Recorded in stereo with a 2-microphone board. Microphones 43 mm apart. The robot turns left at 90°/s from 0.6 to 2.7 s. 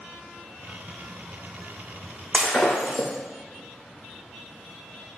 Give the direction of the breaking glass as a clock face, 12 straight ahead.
7 o'clock.